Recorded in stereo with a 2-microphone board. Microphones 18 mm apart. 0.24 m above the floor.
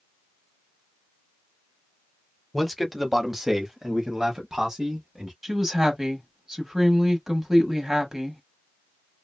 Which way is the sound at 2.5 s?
5° left (ahead or behind).